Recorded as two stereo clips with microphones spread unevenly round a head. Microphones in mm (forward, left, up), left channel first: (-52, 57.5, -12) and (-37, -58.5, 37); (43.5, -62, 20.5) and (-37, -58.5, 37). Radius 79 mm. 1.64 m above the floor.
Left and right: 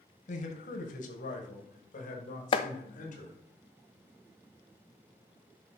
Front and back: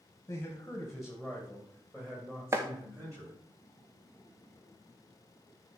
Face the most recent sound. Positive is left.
turn(degrees=155)